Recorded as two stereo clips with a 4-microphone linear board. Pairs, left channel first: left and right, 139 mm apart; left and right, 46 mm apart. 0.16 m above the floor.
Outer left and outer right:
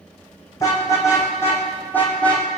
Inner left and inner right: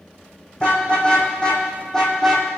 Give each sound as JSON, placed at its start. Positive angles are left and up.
{"t": 0.6, "sound": "a car horn", "side_deg": 25, "distance_m": 5.0}